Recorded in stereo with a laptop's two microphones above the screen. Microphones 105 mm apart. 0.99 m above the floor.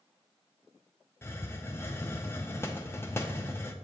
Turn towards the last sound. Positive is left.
turn(degrees=25)  # may be behind; listen again after turning